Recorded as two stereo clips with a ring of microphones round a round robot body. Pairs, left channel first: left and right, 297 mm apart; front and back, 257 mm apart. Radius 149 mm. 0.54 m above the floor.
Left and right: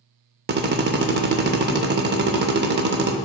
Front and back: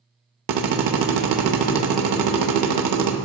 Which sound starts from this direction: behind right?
A drill, at 0.5 s.